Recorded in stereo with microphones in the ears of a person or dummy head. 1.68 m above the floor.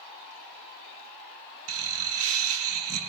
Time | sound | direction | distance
1.7 | laughter | 80° right | 0.9 m